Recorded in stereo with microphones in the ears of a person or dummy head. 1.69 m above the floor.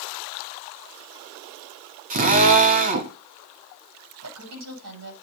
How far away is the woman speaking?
About 9 m.